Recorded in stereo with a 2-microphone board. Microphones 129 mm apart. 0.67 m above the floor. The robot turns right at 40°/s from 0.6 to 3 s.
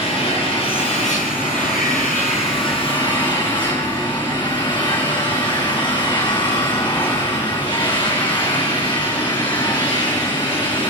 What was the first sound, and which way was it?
An engine running, 45° left.